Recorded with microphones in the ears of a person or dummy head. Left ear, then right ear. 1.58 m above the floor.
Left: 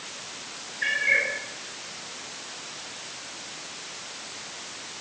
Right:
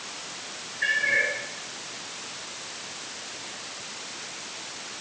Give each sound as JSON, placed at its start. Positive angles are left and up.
{"t": 0.8, "sound": "a cat meowing", "side_deg": 10, "distance_m": 6.0}